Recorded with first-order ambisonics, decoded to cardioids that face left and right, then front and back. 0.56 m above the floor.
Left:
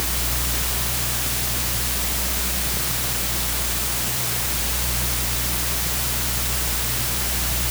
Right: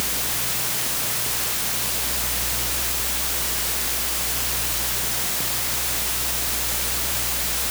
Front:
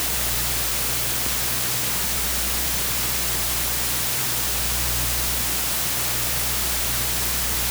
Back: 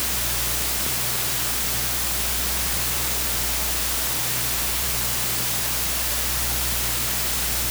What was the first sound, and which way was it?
Only background noise.